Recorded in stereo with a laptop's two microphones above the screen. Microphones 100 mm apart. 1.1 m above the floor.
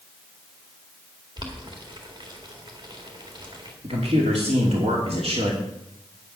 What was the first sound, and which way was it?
Boiling, 50° right (ahead or behind).